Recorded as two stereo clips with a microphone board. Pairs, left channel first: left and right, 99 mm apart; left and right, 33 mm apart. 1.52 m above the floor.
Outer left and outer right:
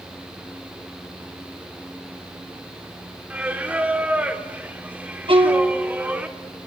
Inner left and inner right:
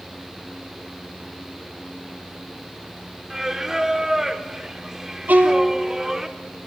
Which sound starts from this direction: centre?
Singing, at 3.3 s.